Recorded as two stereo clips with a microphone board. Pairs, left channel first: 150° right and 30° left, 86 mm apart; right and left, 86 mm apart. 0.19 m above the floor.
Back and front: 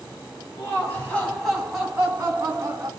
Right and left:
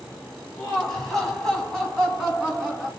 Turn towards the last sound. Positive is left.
turn(degrees=-5)